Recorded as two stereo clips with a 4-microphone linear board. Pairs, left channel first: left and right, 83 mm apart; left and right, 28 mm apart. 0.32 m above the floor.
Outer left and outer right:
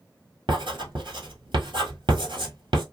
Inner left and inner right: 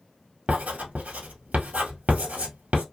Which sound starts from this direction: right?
Writing, at 0.5 s.